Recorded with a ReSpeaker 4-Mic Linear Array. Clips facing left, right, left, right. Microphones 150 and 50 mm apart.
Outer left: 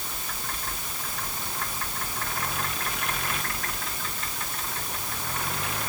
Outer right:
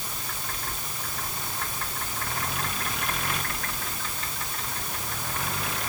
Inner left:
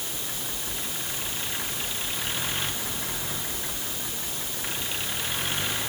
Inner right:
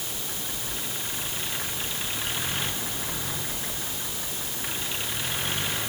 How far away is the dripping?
No dripping in this recording.